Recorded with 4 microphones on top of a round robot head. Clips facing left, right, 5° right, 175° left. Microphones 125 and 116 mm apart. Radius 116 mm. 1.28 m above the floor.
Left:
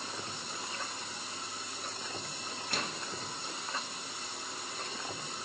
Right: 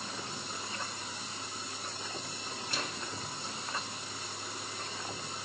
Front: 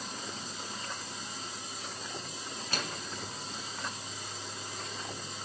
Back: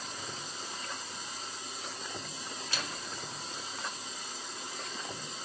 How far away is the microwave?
About 1.5 m.